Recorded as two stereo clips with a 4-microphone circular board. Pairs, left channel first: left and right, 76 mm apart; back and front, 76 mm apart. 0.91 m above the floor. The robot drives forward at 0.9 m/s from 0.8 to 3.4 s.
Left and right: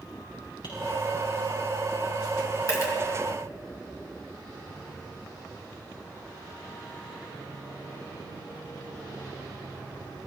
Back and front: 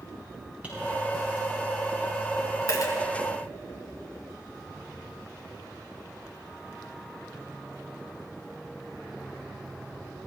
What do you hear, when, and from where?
0.6 s tapping: 70° left, 7 m
2.7 s a dropped coin: 135° left, 3 m; by 2.9 s 140° left, 3 m